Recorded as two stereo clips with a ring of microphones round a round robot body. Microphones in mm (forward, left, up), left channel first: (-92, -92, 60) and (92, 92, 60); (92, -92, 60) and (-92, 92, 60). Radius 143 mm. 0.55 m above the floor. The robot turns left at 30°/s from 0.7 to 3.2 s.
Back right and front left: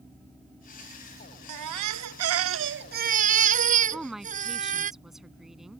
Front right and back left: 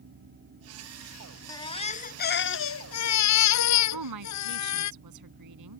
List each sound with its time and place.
1.5 s a baby crying: 35° left; by 4.9 s 20° right
3.9 s a woman speaking: 135° left